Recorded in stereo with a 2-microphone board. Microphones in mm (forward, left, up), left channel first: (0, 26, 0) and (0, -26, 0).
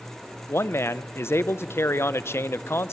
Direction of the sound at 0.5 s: 55° left (ahead or behind).